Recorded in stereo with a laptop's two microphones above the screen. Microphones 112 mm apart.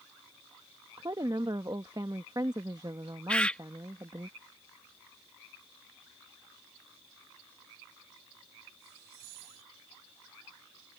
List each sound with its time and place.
1.0 s a woman speaking: 35° right (ahead or behind)
3.3 s a bird: 10° left (ahead or behind)